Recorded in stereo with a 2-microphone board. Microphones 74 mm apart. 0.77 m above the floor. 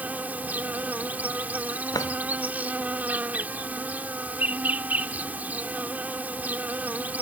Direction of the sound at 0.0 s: 20° right (ahead or behind).